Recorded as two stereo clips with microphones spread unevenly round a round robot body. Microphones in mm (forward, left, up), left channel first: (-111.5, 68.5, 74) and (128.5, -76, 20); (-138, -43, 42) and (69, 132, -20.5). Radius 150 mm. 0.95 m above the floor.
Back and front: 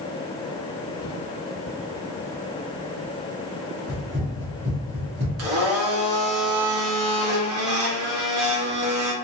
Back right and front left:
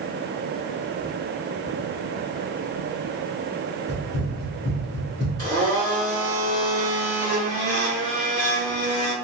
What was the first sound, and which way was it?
Running footsteps, 135° right.